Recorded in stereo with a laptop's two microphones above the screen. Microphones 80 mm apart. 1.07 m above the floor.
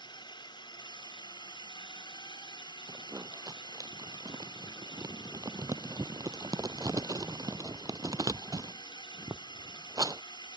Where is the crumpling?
45° right (ahead or behind).